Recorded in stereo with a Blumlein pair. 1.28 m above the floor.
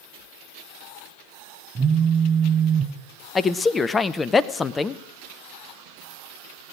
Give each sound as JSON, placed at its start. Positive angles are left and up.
{"t": 1.8, "sound": "a phone buzzing", "azimuth_deg": -25, "distance_m": 0.9}
{"t": 3.4, "sound": "a man speaking", "azimuth_deg": 10, "distance_m": 0.7}